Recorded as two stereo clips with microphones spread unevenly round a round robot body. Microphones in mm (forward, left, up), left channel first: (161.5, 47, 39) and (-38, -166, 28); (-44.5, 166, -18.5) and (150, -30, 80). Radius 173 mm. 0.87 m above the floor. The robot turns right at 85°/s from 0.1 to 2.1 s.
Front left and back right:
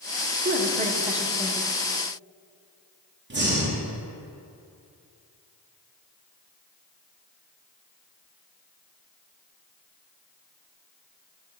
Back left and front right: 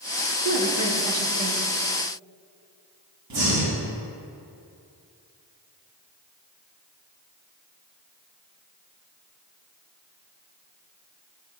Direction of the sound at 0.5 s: 110° right.